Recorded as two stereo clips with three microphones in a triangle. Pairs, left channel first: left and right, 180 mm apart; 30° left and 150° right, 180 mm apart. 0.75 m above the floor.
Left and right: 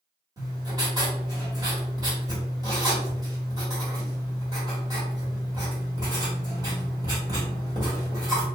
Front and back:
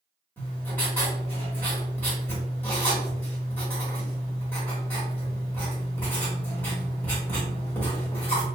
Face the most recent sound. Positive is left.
turn(degrees=-45)